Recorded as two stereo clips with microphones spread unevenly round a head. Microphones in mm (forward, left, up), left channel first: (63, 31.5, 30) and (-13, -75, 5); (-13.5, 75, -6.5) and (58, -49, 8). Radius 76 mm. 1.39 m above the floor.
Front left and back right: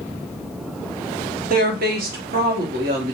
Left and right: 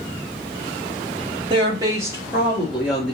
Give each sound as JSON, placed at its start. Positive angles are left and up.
{"t": 1.5, "sound": "a woman speaking", "azimuth_deg": -120, "distance_m": 0.8}